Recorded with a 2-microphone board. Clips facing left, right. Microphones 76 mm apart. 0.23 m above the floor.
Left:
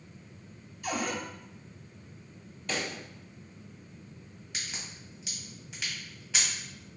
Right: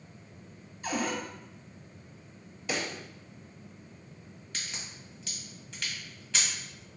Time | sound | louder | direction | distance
0.8 | a cupboard door | right 1 dB | 25° right (ahead or behind) | 1.1 m
2.7 | a pop | right 1 dB | 5° right (ahead or behind) | 0.6 m
4.5 | a crack | left 1 dB | 15° left (ahead or behind) | 1.4 m